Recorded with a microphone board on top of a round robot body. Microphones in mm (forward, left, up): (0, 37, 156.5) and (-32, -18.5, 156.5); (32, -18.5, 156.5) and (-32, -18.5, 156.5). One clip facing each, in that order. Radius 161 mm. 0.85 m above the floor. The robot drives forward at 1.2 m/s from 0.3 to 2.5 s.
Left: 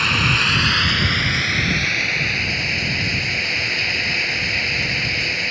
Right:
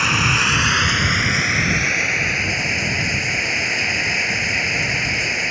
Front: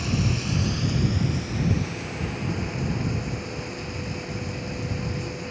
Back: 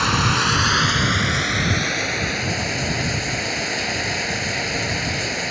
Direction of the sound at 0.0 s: 160° left.